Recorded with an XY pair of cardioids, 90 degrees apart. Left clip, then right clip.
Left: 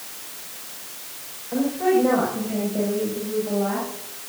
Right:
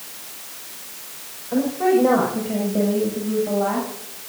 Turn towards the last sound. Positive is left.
turn(degrees=-45)